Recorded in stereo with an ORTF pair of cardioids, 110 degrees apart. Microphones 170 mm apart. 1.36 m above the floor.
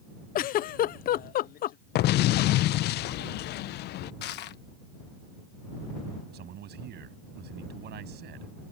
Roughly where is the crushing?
Left.